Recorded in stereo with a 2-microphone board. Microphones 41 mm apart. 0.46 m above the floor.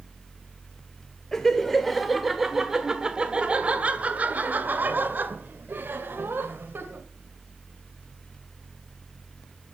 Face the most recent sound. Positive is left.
turn(degrees=-65)  # may be behind; listen again after turning